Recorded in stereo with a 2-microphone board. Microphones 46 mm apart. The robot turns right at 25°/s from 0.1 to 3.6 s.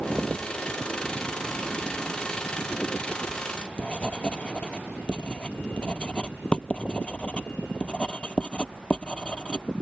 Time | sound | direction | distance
3.3 | writing | 15° left (ahead or behind) | ?